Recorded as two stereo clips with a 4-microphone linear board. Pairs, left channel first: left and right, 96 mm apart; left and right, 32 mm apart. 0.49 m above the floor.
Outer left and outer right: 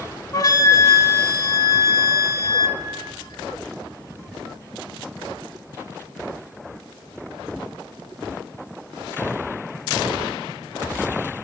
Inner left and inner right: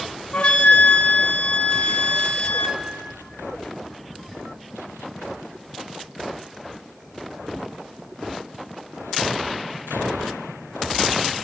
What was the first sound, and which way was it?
A flute, 45° left (ahead or behind).